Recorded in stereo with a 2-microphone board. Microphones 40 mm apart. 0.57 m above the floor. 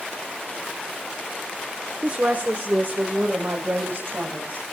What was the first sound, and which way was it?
A woman speaking, 40° right (ahead or behind).